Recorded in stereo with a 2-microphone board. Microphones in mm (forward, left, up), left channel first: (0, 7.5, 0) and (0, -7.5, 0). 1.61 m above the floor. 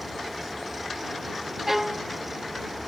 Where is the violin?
10° right (ahead or behind).